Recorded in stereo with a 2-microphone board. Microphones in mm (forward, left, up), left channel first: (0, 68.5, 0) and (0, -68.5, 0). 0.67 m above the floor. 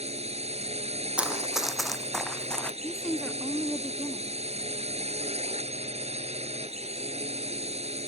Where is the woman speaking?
Centre (ahead or behind).